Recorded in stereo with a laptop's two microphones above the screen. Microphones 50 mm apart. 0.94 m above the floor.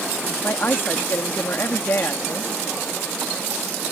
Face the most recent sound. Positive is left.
turn(degrees=45)  # may be behind; listen again after turning